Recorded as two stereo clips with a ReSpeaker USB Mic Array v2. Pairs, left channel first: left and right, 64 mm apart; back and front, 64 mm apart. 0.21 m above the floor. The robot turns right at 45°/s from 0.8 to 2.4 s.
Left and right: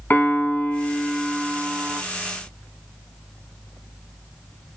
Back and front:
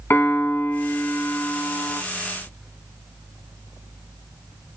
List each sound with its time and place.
0.1 s a piano: 140° left, 0.8 m; by 2.0 s 165° right, 0.8 m